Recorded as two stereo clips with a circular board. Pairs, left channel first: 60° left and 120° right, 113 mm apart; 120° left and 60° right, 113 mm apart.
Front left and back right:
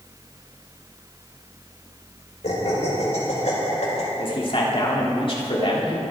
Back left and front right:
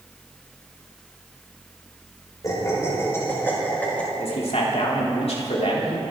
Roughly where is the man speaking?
Left.